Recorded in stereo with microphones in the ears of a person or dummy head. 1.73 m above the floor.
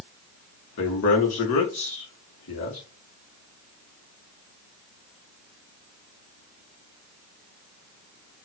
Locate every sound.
0.8 s a man speaking: 55° left (ahead or behind), 1.6 m